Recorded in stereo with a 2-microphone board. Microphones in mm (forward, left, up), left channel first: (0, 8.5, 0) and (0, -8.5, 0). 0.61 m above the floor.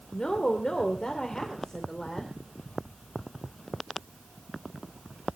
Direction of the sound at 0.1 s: 60° left (ahead or behind).